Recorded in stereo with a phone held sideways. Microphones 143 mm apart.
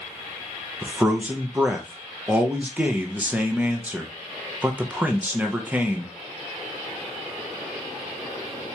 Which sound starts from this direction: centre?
A man speaking, at 0.8 s.